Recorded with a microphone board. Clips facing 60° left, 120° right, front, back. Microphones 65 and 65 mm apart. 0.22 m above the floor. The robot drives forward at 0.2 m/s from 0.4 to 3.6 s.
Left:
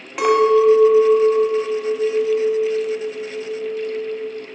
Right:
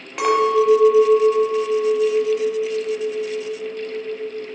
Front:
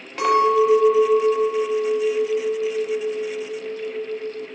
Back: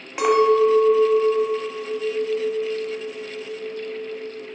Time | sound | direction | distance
0.2 | a clink | 140° left | 0.8 m